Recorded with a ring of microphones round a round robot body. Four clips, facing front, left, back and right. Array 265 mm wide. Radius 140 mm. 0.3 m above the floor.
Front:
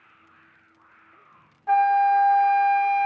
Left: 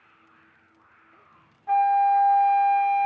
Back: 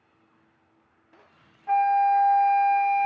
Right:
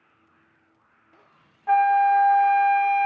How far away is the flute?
About 1.1 m.